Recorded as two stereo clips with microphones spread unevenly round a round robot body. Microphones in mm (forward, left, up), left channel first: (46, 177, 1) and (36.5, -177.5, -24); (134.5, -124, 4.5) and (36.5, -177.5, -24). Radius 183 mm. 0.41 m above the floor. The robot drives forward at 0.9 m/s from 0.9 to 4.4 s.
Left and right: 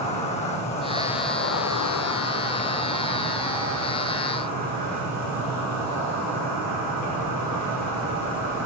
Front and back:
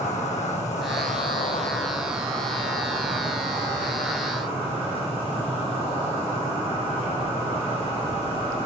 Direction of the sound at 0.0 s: 15° left.